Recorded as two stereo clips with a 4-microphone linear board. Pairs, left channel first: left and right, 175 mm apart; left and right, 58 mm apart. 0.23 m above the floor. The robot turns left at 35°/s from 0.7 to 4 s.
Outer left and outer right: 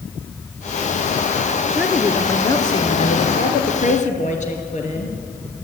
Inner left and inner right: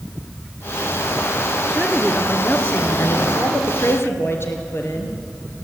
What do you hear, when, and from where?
1.7 s a woman speaking: 170° right, 3.5 m; by 3.2 s 135° left, 3.5 m
3.4 s a woman speaking: 65° left (ahead or behind), 4.5 m; by 5.1 s 45° left (ahead or behind), 4.5 m